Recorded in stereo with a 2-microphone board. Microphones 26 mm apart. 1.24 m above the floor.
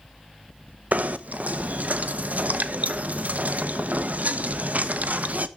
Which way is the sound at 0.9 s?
70° right (ahead or behind).